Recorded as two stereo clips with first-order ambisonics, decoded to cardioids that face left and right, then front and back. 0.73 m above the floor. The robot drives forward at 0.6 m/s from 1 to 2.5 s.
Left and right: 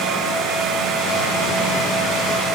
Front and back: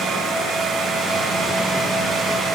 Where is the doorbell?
No doorbell in this recording.